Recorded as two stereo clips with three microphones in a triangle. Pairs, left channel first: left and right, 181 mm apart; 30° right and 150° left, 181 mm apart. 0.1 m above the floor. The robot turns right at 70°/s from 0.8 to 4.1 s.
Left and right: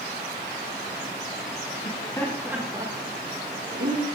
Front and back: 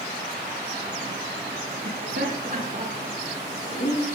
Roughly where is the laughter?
Behind left.